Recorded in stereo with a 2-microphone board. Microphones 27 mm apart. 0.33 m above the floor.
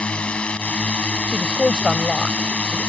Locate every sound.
0.0 s a drone: 45° left (ahead or behind)
1.3 s a woman speaking: 25° left (ahead or behind)